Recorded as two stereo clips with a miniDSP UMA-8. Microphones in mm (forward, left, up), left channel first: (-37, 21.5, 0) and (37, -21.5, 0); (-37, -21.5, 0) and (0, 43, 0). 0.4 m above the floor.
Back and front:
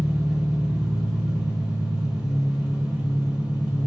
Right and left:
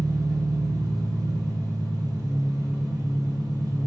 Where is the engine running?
45° left, 0.8 m.